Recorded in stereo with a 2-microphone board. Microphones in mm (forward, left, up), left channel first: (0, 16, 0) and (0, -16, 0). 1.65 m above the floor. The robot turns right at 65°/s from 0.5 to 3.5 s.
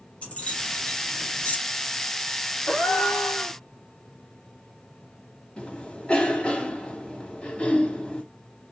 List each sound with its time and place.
0.2 s keys jangling: 40° left (ahead or behind), 1.2 m; by 1.6 s 55° left (ahead or behind), 1.2 m
2.7 s a gasp: 115° left, 1.9 m; by 3.6 s 170° left, 1.9 m
5.6 s a cough: 25° left (ahead or behind), 2 m